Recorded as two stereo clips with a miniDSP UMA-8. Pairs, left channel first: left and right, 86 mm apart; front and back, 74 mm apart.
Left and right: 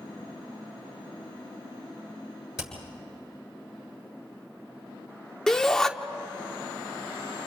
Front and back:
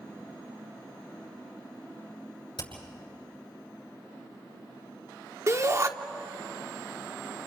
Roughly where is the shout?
Behind.